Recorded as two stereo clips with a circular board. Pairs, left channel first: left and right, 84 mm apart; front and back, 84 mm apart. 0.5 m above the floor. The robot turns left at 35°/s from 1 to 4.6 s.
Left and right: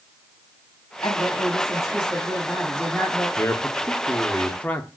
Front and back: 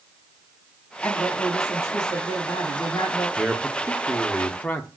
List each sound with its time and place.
1.0 s a woman speaking: 70° left, 4 m; by 3.3 s 10° right, 4 m
3.4 s a man speaking: 85° left, 0.8 m; by 4.9 s 40° left, 0.8 m